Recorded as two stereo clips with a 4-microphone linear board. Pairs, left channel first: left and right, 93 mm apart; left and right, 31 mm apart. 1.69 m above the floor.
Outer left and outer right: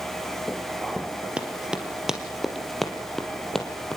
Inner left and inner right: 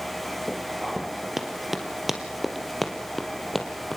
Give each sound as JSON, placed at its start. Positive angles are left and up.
{"t": 1.4, "sound": "running footsteps", "side_deg": -15, "distance_m": 2.5}